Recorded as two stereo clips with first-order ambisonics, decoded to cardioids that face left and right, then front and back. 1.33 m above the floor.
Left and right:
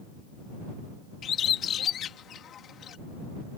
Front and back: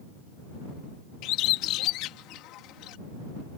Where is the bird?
35° left.